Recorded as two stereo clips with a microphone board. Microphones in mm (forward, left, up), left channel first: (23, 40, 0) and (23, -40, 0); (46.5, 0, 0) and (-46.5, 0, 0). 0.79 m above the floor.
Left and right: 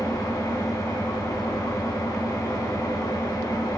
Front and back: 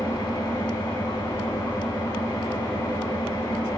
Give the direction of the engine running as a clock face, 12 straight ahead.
10 o'clock.